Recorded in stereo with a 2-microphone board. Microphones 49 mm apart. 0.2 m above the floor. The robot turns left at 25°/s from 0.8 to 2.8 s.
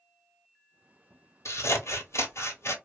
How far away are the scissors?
About 0.9 m.